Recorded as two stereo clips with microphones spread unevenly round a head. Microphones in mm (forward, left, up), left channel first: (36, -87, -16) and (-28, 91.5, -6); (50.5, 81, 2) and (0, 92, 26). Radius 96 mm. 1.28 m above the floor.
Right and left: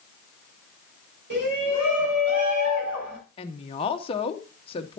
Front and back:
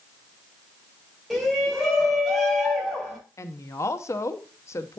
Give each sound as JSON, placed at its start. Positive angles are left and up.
{"t": 1.3, "sound": "a shout", "azimuth_deg": 75, "distance_m": 7.0}
{"t": 3.4, "sound": "a woman speaking", "azimuth_deg": -10, "distance_m": 0.8}